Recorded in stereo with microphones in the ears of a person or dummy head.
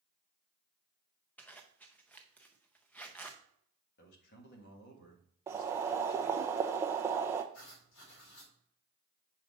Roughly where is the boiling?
Centre.